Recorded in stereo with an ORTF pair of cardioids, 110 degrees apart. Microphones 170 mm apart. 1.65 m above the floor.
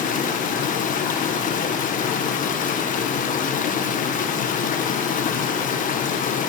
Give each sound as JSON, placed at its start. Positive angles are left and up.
{"t": 0.0, "sound": "running water", "azimuth_deg": 55, "distance_m": 1.2}